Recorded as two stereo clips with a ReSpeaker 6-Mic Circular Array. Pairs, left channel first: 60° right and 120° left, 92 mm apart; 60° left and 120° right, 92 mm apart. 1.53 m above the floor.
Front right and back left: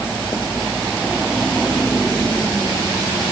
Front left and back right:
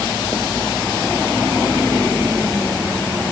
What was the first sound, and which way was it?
Only background noise.